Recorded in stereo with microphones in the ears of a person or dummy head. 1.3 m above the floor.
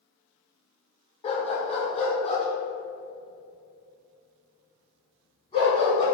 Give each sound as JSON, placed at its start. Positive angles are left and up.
{"t": 1.2, "sound": "a dog barking", "side_deg": 30, "distance_m": 1.7}